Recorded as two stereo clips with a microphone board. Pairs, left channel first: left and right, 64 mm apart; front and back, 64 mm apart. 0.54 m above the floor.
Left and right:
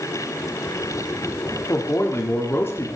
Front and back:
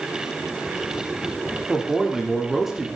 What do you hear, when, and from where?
1.7 s a man speaking: 95° left, 0.8 m